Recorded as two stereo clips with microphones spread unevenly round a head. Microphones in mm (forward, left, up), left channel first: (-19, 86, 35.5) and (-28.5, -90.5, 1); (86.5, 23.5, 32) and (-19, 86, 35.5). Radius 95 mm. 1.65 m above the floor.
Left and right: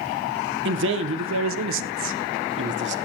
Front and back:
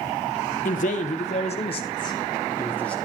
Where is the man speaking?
65° right, 1.6 m; by 3.0 s 115° right, 1.6 m.